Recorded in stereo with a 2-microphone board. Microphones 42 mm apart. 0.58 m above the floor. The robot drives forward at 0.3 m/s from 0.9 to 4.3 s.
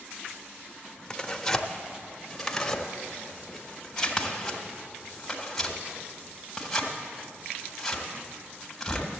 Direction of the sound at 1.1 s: 15° left (ahead or behind).